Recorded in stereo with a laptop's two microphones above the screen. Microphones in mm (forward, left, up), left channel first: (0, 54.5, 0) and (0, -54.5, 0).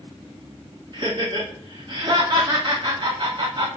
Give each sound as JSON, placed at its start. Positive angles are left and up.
{"t": 0.9, "sound": "laughter", "side_deg": -45, "distance_m": 0.9}